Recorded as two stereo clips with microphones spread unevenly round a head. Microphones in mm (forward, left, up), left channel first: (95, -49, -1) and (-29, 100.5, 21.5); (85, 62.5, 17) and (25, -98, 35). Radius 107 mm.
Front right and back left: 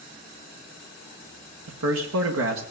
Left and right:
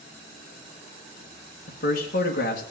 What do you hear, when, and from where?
1.7 s a man speaking: 115° left, 1.9 m